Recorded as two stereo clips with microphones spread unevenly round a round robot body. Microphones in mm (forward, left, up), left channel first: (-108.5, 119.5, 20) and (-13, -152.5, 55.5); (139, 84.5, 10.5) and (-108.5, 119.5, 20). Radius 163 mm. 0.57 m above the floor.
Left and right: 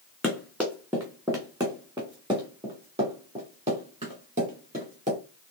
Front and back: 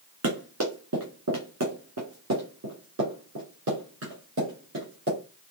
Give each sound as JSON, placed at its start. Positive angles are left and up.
{"t": 0.2, "sound": "running footsteps", "azimuth_deg": -160, "distance_m": 1.8}